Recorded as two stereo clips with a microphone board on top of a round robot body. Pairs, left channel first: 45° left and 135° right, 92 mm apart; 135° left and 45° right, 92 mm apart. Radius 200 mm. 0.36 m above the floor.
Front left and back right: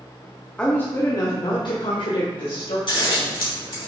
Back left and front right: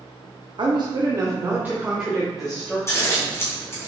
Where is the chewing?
No chewing in this recording.